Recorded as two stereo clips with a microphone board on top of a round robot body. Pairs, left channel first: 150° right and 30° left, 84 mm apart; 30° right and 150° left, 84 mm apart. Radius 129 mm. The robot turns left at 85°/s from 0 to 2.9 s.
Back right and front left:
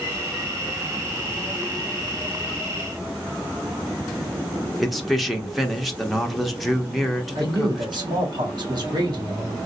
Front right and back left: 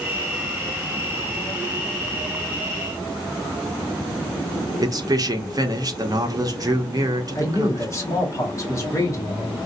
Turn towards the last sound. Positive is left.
turn(degrees=20)